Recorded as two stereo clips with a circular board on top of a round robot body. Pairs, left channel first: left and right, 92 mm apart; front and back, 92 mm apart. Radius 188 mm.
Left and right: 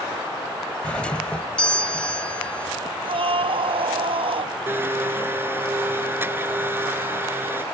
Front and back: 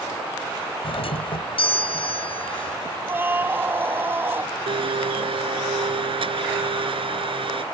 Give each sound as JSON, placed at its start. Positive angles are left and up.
{"t": 0.8, "sound": "a doorbell", "azimuth_deg": 10}
{"t": 3.1, "sound": "a scream", "azimuth_deg": -115}
{"t": 4.7, "sound": "a blender", "azimuth_deg": -155}